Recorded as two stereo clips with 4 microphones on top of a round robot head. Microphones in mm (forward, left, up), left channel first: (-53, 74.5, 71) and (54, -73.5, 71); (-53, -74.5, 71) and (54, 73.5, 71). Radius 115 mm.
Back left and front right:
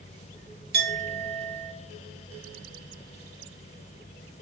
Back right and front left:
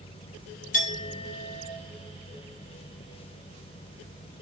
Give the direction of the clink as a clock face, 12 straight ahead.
3 o'clock.